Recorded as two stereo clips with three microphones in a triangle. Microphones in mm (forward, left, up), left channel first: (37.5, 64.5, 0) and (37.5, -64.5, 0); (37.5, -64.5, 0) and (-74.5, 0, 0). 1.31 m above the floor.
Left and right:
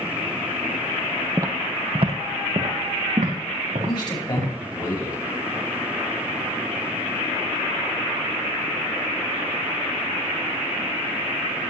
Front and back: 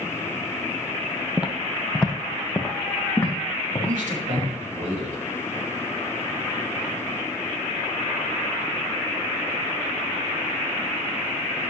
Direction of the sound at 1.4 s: 140° right.